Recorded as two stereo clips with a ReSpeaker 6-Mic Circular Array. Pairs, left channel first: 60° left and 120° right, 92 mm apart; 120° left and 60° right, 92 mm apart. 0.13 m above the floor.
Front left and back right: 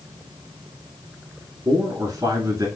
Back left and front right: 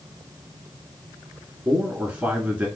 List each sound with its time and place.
1.6 s a man speaking: 125° right, 1.3 m